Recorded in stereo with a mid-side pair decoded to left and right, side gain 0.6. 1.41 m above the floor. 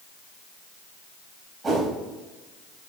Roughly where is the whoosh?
Ahead.